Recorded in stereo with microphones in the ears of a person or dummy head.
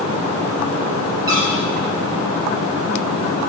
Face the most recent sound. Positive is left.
turn(degrees=-20)  # may be behind; listen again after turning